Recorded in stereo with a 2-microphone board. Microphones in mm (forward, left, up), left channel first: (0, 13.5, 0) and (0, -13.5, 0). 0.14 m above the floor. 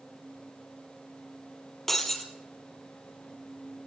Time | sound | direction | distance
1.9 | breaking glass | 15° left (ahead or behind) | 2.5 m